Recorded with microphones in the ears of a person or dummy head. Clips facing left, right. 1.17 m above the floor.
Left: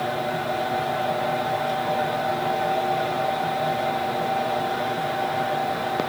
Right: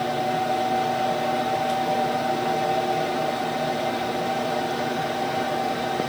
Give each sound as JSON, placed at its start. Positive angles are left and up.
{"t": 0.0, "sound": "a fan", "side_deg": -5, "distance_m": 3.5}